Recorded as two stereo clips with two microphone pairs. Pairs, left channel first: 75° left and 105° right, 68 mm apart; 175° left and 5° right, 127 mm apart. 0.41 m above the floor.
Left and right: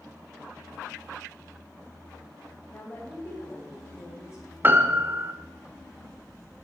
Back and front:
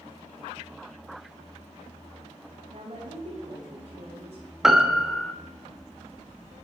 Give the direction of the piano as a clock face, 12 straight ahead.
3 o'clock.